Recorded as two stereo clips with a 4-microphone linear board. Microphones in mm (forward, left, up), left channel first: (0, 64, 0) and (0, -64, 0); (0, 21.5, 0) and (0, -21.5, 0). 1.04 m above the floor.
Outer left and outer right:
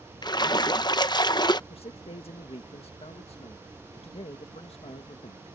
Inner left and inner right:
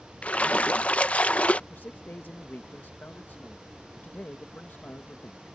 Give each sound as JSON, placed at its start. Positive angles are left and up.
{"t": 0.2, "sound": "a splash", "side_deg": 35}
{"t": 1.7, "sound": "a man speaking", "side_deg": 55}